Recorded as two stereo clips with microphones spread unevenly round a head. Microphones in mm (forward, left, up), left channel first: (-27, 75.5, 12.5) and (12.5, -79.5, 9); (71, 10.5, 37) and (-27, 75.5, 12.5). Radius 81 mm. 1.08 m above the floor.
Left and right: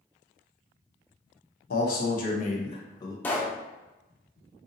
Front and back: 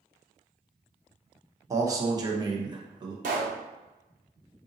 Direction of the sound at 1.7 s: 95° left.